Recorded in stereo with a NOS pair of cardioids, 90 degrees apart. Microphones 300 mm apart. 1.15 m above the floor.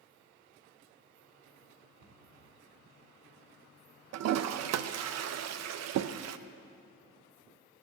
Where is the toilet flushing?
60° right, 0.5 m.